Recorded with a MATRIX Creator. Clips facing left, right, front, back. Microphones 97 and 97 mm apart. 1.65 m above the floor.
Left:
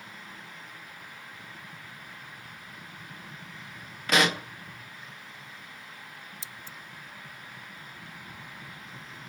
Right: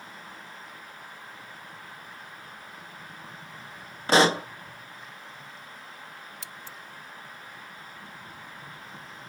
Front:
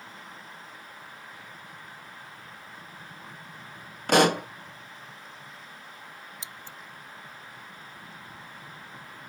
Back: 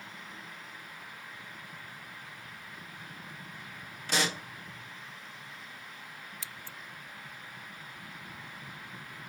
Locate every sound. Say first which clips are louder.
4.1 s a pop: right 5 dB, front 12 dB; 30° right
6.4 s scissors: right 2 dB, front 2 dB; 70° right